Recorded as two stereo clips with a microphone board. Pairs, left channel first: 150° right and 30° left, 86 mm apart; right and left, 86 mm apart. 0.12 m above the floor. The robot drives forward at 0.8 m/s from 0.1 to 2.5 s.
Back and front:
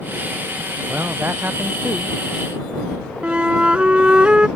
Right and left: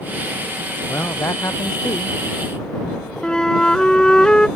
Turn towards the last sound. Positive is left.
turn(degrees=-25)